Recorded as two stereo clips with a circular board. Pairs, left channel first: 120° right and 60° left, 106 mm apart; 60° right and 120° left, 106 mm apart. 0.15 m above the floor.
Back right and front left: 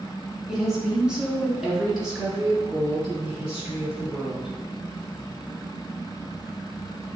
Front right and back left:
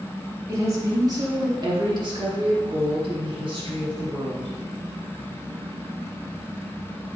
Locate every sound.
0.5 s a woman speaking: 140° left, 1.5 m